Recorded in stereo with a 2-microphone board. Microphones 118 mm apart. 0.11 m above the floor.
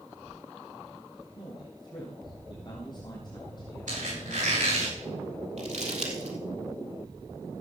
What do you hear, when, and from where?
1.4 s a man speaking: 35° left (ahead or behind), 3.5 m
3.9 s a squeak: 80° right, 8 m
5.6 s crumpling: 60° right (ahead or behind), 3 m